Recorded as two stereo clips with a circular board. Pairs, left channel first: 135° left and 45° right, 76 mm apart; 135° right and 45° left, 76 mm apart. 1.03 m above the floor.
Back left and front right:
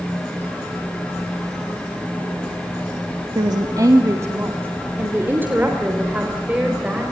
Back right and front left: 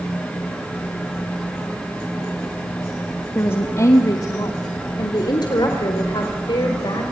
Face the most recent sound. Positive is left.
turn(degrees=-120)